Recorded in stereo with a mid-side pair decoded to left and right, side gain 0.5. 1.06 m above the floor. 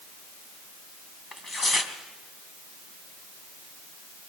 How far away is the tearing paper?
About 3.5 m.